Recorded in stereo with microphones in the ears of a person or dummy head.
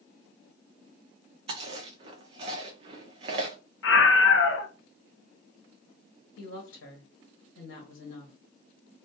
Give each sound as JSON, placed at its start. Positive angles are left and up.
{"t": 1.5, "sound": "chewing", "side_deg": -35, "distance_m": 0.5}
{"t": 3.8, "sound": "a scream", "side_deg": 65, "distance_m": 0.6}
{"t": 6.4, "sound": "a woman speaking", "side_deg": 65, "distance_m": 1.1}